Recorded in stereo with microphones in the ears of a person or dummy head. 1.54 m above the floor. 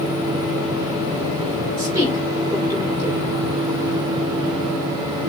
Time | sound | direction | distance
1.8 | a woman speaking | 20° right (ahead or behind) | 2.5 m